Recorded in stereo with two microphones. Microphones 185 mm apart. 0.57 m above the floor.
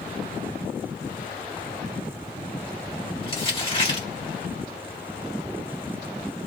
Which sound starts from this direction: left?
Crumpling, at 3.2 s.